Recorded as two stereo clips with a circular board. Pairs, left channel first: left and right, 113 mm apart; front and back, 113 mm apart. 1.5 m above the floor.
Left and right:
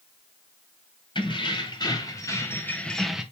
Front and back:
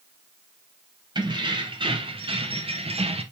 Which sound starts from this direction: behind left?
Keys jangling, at 1.1 s.